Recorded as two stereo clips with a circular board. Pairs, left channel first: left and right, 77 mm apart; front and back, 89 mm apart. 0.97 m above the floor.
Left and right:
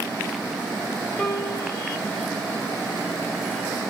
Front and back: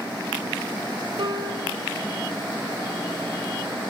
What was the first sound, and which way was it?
A piano, straight behind.